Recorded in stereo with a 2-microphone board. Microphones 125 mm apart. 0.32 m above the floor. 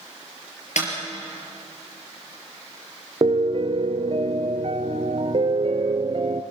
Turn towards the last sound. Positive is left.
turn(degrees=-55)  # may be behind; listen again after turning